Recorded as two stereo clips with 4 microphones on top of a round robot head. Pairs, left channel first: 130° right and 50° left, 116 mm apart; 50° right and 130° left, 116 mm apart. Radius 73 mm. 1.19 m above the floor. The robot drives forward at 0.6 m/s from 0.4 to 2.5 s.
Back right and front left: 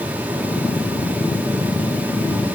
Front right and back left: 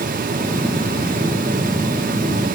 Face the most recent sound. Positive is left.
No sound to turn to.